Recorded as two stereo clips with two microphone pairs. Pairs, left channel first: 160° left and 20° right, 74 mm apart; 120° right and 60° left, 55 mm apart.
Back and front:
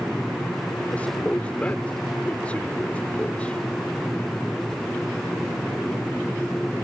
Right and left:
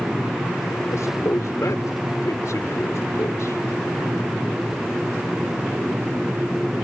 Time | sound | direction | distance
0.9 | a man speaking | 125° right | ?